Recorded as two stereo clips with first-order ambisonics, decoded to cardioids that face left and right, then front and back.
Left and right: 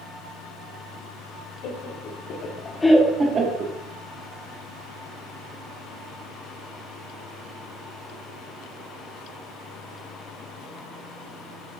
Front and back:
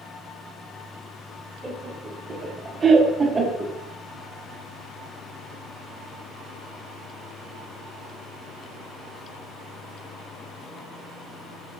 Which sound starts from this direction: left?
Laughter, at 1.6 s.